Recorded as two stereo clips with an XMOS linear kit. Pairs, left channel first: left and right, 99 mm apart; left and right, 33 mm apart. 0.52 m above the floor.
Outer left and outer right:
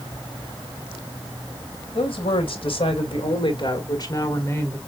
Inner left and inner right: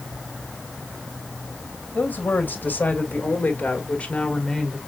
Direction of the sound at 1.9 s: 65° left (ahead or behind).